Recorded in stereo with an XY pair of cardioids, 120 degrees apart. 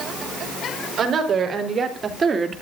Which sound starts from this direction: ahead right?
A woman speaking, at 1.0 s.